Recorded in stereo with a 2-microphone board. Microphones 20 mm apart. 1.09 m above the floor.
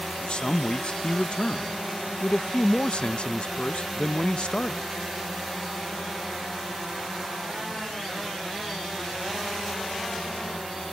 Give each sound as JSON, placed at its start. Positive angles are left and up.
{"t": 0.2, "sound": "a man speaking", "side_deg": 60}